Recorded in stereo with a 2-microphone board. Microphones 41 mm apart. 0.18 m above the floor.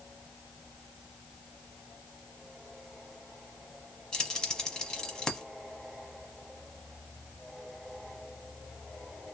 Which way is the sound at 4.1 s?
20° left (ahead or behind).